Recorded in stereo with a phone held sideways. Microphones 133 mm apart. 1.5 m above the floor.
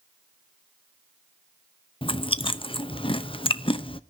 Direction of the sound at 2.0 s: 40° left (ahead or behind).